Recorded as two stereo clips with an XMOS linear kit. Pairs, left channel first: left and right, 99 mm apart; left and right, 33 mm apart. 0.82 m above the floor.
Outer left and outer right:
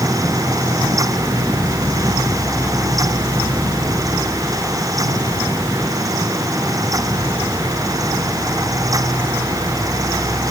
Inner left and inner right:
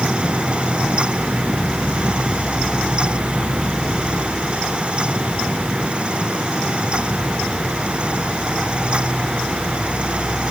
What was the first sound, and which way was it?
Only background noise.